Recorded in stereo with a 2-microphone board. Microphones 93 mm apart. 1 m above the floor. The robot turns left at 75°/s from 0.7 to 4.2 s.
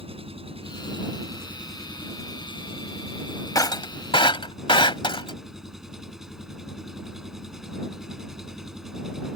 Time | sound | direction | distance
0.0 | an engine running | 100° right | ?
3.5 | breaking glass | 35° left (ahead or behind) | ?